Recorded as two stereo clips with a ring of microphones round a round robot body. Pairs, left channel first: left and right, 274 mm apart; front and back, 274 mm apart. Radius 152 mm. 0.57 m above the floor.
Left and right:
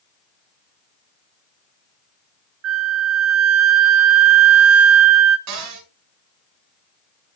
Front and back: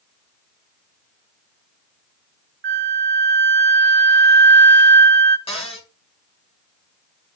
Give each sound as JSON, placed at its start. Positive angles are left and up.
{"t": 2.6, "sound": "a flute", "azimuth_deg": -130, "distance_m": 0.8}
{"t": 5.5, "sound": "a cupboard door", "azimuth_deg": -70, "distance_m": 4.0}